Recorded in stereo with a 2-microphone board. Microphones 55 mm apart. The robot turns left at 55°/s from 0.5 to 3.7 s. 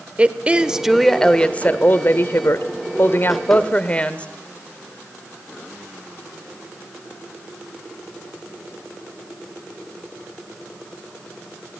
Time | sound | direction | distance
0.2 | a woman speaking | 155° right | 1.1 m